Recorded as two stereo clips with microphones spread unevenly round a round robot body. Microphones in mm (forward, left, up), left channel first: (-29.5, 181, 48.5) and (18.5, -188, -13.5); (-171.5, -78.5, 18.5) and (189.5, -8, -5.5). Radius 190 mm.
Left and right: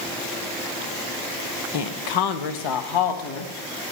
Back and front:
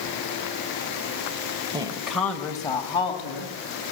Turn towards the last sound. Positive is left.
turn(degrees=115)